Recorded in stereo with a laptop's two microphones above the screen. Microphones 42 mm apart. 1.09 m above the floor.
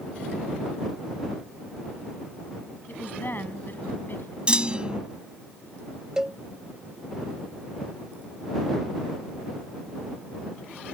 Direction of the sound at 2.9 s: 50° left (ahead or behind).